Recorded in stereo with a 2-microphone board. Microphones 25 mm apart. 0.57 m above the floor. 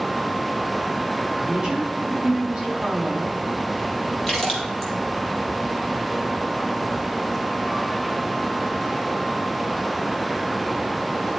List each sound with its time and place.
1.4 s a woman speaking: 20° right (ahead or behind), 6 m; by 3.4 s 30° right (ahead or behind), 5.5 m
4.3 s a splash: 15° left (ahead or behind), 4.5 m